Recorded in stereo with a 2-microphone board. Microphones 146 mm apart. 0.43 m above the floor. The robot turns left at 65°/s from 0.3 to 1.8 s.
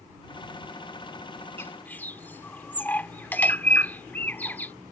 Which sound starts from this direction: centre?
A bird, at 1.6 s.